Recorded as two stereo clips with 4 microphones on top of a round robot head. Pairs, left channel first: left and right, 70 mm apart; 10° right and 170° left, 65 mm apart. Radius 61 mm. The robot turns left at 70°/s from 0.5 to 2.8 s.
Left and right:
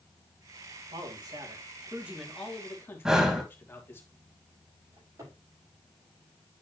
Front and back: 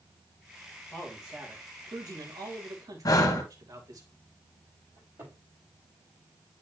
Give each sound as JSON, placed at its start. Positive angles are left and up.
{"t": 0.9, "sound": "a man speaking", "azimuth_deg": -80, "distance_m": 2.5}
{"t": 3.0, "sound": "breathing", "azimuth_deg": -10, "distance_m": 1.4}
{"t": 5.0, "sound": "a cupboard door", "azimuth_deg": -130, "distance_m": 6.5}